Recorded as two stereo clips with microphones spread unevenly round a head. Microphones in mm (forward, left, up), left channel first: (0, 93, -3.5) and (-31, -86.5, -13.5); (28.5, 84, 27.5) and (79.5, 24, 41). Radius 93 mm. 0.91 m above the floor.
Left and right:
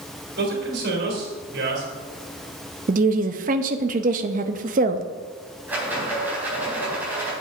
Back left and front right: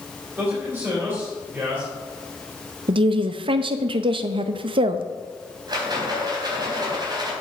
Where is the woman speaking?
55° right, 0.6 m.